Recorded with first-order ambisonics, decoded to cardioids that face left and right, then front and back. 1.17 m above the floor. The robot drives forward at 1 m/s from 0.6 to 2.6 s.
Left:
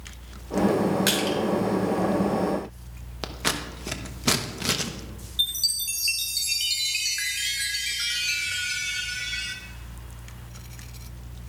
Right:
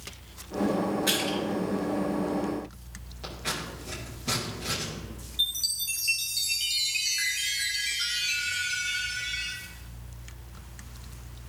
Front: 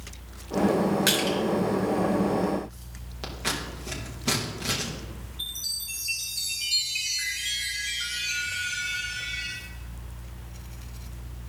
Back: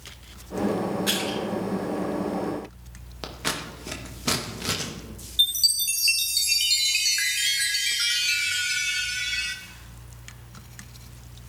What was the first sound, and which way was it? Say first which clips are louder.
Crushing: left 3 dB, front 2 dB; 50° left.